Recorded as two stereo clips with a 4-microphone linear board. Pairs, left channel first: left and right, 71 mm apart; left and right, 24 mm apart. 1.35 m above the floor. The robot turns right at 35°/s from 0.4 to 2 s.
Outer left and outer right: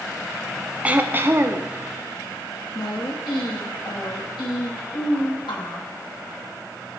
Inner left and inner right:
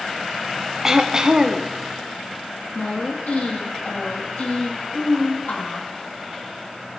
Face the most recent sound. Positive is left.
turn(degrees=85)